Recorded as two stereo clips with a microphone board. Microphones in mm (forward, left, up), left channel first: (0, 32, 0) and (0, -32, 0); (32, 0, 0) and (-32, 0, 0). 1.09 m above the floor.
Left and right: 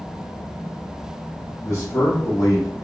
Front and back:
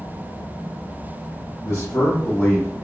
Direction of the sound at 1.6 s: 35° left.